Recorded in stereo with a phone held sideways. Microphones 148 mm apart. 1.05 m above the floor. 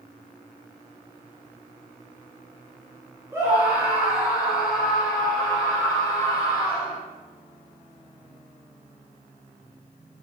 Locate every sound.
3.3 s a scream: 15° right (ahead or behind), 4 m; by 7.0 s 15° left (ahead or behind), 5.5 m